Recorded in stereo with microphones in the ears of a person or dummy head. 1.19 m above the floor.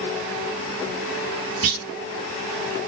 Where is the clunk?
45° right (ahead or behind), 1.4 m.